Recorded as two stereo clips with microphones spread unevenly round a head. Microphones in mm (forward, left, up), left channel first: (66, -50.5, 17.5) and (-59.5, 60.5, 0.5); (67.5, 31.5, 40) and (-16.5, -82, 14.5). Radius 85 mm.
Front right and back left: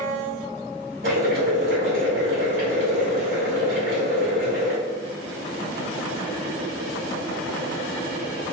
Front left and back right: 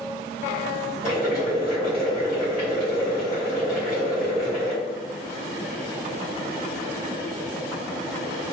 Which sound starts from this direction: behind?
Boiling, at 1.0 s.